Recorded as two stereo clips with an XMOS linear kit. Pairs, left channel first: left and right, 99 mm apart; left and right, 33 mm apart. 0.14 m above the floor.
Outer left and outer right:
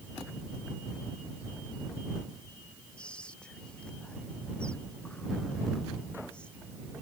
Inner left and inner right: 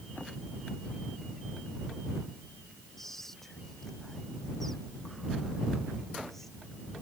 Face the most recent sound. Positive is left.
turn(degrees=10)  # may be behind; listen again after turning